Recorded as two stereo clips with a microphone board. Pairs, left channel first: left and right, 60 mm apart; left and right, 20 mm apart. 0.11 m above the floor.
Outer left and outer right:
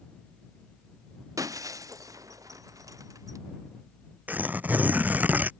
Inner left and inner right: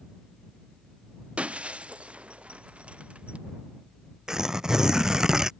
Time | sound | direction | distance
1.4 | breaking glass | 75° right (ahead or behind) | ?
4.3 | tearing paper | 30° right (ahead or behind) | ?